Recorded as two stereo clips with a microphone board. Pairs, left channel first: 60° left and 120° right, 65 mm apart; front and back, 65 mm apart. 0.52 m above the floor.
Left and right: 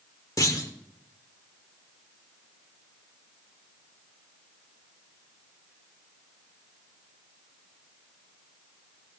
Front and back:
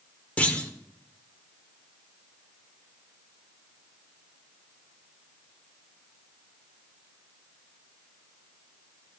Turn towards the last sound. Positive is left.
turn(degrees=65)